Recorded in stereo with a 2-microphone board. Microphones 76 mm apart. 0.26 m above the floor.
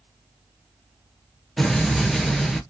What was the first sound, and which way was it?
An explosion, 5° left (ahead or behind).